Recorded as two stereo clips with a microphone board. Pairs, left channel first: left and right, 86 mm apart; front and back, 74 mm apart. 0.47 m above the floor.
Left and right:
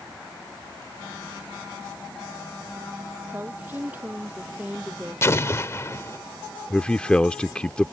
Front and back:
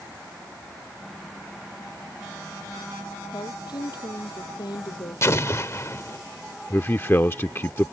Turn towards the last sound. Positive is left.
turn(degrees=25)